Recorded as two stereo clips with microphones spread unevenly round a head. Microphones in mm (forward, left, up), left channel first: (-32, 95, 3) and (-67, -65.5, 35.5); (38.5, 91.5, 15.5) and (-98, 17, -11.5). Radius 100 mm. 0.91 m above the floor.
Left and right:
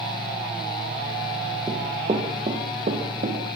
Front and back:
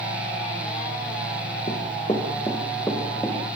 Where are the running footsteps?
35° right, 4 m; by 3.4 s 55° right, 5.5 m.